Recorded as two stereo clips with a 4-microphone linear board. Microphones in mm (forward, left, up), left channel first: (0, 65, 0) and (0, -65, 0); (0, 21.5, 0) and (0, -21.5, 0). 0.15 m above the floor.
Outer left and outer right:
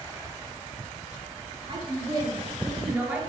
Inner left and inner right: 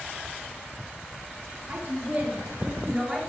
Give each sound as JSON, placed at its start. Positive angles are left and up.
{"t": 1.7, "sound": "a woman speaking", "side_deg": -40, "distance_m": 2.5}